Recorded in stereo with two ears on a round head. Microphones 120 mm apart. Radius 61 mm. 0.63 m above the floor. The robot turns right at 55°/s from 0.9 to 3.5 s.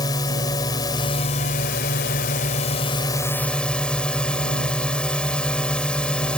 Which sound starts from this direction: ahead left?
A drone, at 0.0 s.